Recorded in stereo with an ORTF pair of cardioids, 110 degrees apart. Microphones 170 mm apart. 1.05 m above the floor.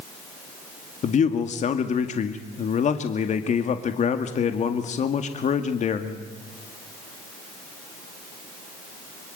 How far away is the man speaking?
About 2.0 m.